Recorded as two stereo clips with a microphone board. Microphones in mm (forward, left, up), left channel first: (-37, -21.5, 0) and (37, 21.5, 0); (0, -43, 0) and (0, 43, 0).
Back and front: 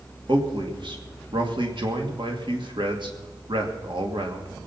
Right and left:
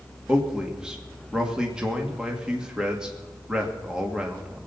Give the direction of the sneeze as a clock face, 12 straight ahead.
I don't hear a sneeze.